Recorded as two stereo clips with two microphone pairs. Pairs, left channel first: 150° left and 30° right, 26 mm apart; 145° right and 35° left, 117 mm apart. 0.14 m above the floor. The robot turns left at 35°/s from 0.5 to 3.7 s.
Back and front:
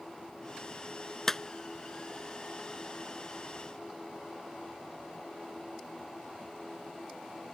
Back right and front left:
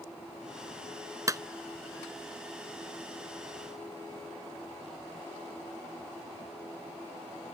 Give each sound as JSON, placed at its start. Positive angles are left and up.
{"t": 1.3, "sound": "a clap", "azimuth_deg": 80}